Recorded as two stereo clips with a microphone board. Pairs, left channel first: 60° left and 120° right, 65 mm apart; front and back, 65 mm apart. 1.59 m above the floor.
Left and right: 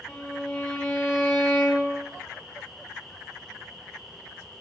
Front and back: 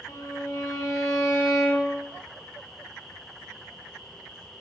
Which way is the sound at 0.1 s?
10° right.